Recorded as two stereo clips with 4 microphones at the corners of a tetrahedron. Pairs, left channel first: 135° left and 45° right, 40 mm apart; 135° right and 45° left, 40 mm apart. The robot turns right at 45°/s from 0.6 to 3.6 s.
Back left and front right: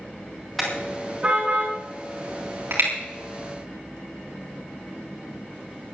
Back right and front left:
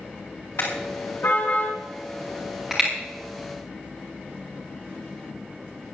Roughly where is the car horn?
Behind right.